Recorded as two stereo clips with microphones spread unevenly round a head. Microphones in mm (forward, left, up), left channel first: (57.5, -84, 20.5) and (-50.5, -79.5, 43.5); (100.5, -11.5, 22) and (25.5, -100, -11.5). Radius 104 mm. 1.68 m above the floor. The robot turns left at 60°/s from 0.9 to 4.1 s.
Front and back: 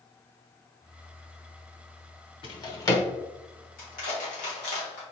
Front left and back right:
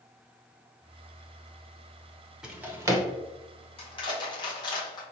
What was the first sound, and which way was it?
A drawer, 30° right.